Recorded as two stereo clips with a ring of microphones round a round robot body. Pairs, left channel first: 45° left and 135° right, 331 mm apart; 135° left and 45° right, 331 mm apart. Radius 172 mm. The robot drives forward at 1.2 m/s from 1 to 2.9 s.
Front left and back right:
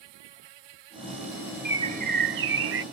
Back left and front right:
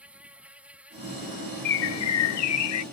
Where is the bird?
140° left; by 2.8 s 175° left.